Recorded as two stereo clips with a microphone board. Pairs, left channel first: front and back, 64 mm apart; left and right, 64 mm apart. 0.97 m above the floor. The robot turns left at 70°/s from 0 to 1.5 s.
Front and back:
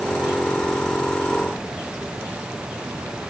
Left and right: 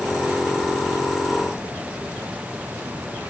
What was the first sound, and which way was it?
Only background noise.